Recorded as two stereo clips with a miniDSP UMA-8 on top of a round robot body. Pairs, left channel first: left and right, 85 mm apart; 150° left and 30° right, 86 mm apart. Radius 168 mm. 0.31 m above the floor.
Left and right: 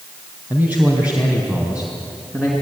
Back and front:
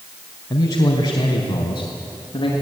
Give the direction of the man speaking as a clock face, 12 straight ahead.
5 o'clock.